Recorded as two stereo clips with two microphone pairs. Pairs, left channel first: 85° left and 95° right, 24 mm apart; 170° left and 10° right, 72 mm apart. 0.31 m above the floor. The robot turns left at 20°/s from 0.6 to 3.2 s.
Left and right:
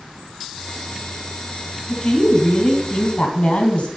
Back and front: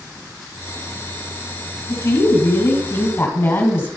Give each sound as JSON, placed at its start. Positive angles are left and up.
{"t": 1.9, "sound": "a woman speaking", "azimuth_deg": 145, "distance_m": 3.0}